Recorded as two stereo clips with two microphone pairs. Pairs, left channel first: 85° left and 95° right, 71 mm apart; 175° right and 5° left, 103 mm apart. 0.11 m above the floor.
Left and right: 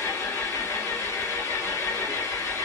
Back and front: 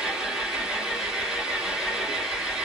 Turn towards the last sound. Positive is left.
turn(degrees=80)